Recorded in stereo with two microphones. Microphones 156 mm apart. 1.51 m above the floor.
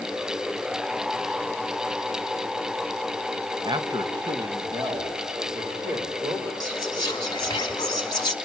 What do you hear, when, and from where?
3.6 s a man speaking: 30° right (ahead or behind), 1.4 m; by 6.5 s 25° right (ahead or behind), 5 m
6.6 s whispering: 25° left (ahead or behind), 3 m